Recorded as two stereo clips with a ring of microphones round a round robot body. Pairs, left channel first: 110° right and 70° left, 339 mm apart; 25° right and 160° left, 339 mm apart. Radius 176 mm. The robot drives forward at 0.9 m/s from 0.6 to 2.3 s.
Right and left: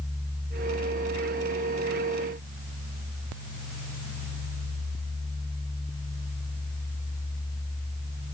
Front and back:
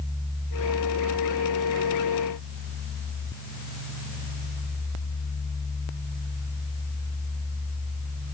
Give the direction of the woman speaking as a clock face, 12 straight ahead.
No woman speaking in this recording.